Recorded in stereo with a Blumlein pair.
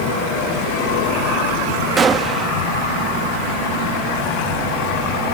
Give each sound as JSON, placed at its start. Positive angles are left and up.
{"t": 2.0, "sound": "a gunshot", "azimuth_deg": -20}